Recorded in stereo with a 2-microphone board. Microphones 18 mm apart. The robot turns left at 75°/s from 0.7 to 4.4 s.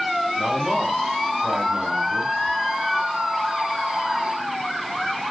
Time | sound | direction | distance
0.4 | a man speaking | 30° right | 3.5 m